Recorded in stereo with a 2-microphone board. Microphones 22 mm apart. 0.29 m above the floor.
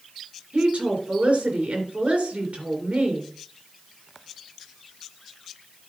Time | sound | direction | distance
0.5 | a woman speaking | 75° right (ahead or behind) | 3.5 m